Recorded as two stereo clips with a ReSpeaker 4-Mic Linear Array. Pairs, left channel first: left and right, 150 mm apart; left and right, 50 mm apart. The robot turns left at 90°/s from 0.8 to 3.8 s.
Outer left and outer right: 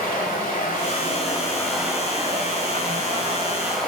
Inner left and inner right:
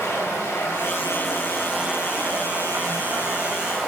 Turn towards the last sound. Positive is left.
turn(degrees=175)